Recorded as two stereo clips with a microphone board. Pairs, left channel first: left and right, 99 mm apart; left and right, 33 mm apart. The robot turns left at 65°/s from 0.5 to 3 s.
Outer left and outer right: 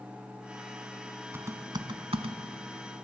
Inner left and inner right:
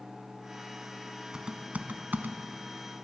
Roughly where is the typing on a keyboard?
Right.